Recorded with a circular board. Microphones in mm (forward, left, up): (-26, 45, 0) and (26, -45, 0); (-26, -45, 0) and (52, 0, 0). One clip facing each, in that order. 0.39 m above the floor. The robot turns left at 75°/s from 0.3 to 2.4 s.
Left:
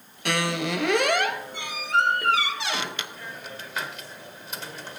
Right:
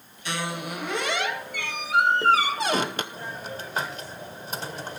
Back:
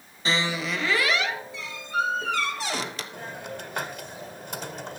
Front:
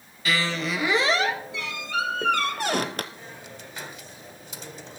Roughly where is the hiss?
Behind right.